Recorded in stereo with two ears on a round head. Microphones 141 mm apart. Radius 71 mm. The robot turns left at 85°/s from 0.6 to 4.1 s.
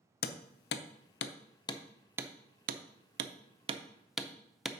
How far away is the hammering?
About 0.5 m.